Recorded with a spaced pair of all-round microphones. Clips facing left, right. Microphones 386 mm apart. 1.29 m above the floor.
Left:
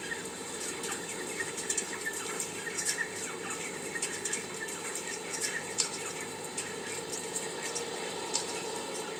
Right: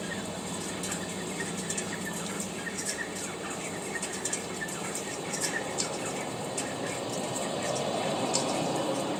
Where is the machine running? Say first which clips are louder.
Right 5 dB; 80° right.